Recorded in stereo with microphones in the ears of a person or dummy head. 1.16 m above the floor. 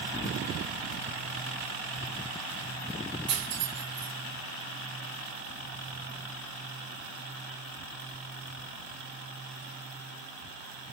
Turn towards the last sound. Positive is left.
turn(degrees=-25)  # may be behind; listen again after turning